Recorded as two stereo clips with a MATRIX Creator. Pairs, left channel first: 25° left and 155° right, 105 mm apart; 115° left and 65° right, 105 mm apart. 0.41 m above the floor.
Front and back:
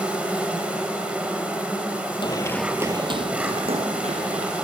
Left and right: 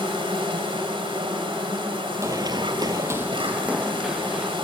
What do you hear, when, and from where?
0.0 s an insect: 80° right, 2.5 m
2.2 s running footsteps: 10° right, 0.8 m; by 4.5 s 150° right, 2.5 m